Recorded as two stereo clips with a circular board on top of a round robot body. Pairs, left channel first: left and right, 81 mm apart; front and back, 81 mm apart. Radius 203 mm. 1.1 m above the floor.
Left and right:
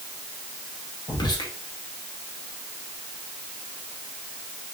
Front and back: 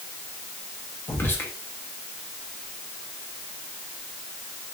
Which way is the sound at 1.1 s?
60° left.